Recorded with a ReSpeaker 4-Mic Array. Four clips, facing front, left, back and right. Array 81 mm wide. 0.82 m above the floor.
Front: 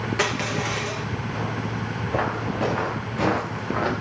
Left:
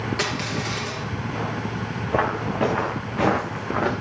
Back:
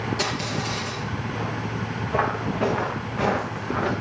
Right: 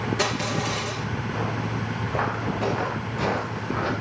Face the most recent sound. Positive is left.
turn(degrees=70)